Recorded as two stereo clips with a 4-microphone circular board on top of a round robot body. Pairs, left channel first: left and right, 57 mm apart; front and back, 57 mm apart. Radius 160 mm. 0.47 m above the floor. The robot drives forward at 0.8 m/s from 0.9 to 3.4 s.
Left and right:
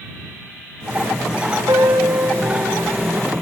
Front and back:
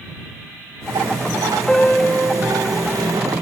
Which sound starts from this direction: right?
A piano, at 1.7 s.